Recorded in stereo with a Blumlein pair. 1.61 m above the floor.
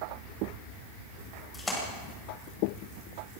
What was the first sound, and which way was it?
A splash, 10° left.